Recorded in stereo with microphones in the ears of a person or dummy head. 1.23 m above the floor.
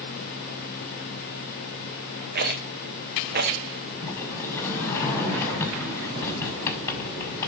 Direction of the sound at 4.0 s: 15° left (ahead or behind).